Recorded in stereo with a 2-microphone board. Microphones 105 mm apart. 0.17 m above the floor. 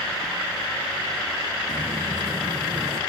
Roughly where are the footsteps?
Right.